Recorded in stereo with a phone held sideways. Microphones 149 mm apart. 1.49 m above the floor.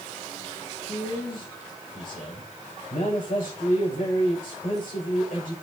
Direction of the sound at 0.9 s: 80° left.